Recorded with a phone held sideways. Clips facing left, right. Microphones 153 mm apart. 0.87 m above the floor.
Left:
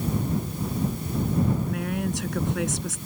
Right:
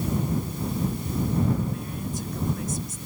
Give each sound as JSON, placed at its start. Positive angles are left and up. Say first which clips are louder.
{"t": 1.7, "sound": "a woman speaking", "louder": "left 4 dB", "side_deg": 75}